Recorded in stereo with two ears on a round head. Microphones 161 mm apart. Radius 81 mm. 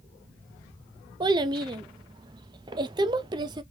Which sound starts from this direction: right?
A child speaking, at 1.2 s.